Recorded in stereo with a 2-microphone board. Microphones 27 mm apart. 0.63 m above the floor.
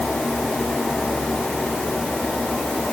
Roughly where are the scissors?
No scissors in this recording.